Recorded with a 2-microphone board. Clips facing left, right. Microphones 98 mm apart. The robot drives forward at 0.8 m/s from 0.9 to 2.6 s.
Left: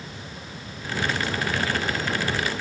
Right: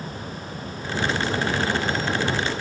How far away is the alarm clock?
No alarm clock in this recording.